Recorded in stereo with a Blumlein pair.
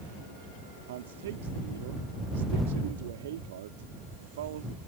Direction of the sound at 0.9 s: 60° right.